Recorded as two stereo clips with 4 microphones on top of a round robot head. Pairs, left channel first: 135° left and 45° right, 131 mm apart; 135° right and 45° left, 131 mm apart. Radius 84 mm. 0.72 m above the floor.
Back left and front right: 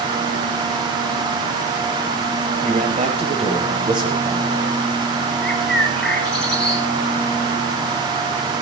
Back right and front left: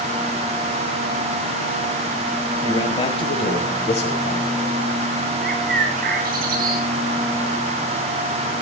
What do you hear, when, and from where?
2.6 s a man speaking: 80° right, 5 m; by 4.7 s 115° right, 5.5 m
5.4 s a bird: 50° left, 3.5 m